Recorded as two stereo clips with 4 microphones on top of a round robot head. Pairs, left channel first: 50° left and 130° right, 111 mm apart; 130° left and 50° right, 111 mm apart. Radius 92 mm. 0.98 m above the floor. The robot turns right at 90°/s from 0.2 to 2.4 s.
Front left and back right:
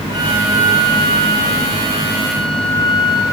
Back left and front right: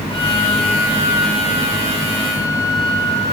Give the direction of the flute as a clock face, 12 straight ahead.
6 o'clock.